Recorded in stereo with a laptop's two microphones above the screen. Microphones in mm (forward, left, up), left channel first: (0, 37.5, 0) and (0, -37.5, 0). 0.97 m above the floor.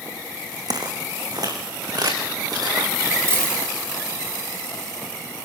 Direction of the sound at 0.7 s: 60° right (ahead or behind).